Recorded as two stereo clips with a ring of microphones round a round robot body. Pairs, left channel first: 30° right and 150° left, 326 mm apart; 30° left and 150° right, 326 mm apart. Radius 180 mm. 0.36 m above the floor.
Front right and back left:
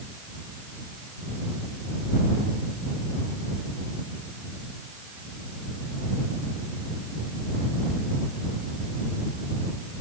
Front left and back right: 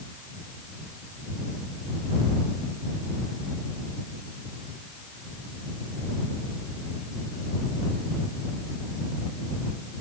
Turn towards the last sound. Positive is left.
No sound to turn to.